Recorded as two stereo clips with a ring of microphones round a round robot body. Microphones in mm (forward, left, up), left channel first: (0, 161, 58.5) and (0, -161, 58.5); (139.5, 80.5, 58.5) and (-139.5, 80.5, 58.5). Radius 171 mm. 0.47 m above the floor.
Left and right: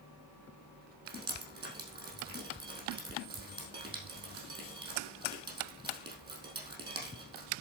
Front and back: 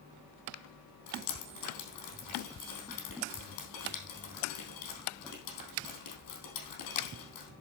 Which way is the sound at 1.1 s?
15° right.